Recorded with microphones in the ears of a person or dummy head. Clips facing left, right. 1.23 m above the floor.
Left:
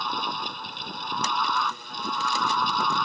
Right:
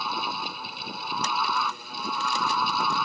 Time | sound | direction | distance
0.0 | a fan | 15° right (ahead or behind) | ?